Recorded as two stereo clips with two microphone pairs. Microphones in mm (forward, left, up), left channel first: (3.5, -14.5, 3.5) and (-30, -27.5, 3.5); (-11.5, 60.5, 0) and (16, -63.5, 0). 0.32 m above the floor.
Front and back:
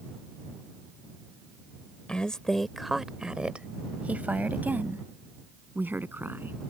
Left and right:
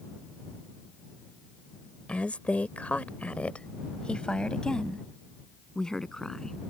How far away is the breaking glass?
I don't hear breaking glass.